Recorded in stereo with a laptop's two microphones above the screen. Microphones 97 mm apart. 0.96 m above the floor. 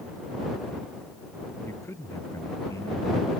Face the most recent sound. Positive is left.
turn(degrees=30)  # may be behind; listen again after turning